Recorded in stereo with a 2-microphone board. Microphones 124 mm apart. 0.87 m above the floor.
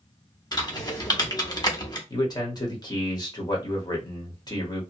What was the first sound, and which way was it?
Typing on a keyboard, 35° left (ahead or behind).